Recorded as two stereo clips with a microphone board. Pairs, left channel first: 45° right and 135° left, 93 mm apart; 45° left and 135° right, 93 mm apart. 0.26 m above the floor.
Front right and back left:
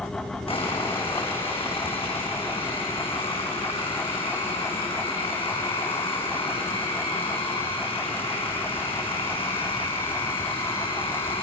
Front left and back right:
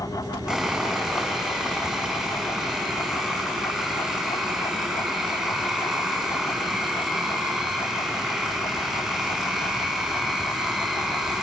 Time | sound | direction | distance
0.5 | sawing | 50° right | 6 m